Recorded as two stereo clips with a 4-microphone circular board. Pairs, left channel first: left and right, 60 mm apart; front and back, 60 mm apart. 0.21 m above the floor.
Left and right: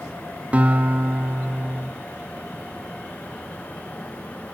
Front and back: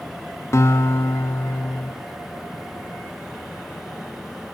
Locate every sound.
0.5 s a guitar: 30° right, 2.5 m